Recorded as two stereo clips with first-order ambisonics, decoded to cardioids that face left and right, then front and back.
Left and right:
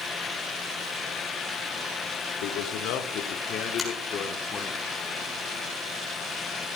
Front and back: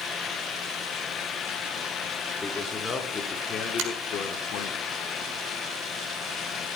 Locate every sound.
2.4 s a man speaking: 80° left, 1.8 m; by 4.8 s 25° left, 1.6 m
3.8 s a finger snap: straight behind, 5.5 m